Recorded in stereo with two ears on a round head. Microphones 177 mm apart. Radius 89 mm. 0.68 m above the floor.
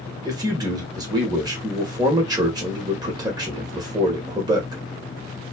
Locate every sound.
0.2 s a man speaking: 20° right (ahead or behind), 0.9 m